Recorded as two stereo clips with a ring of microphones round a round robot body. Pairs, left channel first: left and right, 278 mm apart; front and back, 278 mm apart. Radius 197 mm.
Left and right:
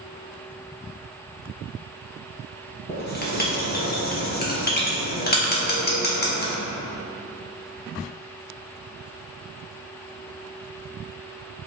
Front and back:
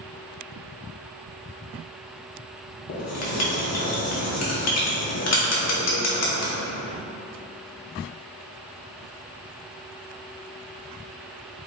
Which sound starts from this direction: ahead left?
Writing, at 2.9 s.